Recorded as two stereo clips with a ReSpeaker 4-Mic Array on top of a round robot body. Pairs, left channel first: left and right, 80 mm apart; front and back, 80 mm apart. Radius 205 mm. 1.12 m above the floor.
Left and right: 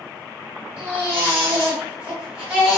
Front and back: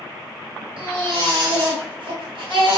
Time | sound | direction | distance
0.8 | a baby crying | 165° right | 1.8 m